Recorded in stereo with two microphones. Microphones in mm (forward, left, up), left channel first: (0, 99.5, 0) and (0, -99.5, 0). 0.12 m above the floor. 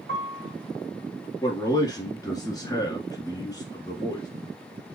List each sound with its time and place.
0.1 s a piano: 75° right (ahead or behind), 2 m
1.4 s a man speaking: 20° left (ahead or behind), 1.2 m